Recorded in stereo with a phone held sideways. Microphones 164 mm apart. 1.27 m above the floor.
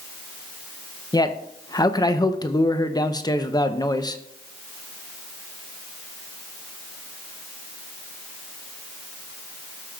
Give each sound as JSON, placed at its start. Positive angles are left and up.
{"t": 1.1, "sound": "a man speaking", "side_deg": 25, "distance_m": 0.6}